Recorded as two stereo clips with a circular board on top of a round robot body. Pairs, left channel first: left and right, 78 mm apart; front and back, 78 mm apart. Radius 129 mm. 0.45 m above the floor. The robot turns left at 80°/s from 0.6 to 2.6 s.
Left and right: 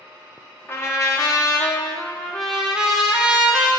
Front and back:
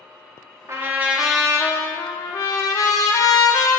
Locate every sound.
0.7 s a trumpet: 140° left, 1.1 m; by 3.8 s 15° right, 1.1 m